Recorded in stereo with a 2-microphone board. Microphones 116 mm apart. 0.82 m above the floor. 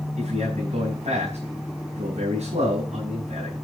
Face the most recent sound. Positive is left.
turn(degrees=-85)